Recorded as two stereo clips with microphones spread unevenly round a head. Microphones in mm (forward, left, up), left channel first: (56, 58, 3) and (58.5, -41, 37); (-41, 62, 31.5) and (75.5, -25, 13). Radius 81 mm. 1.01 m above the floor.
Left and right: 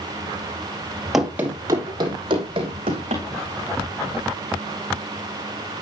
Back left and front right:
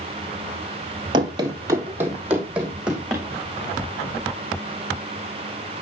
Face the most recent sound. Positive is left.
turn(degrees=-125)